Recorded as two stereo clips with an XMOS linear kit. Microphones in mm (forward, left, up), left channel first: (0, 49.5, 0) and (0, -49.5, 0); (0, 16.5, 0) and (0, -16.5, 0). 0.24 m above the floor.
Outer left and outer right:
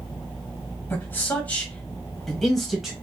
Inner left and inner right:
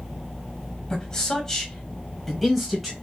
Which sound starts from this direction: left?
A man speaking, at 0.9 s.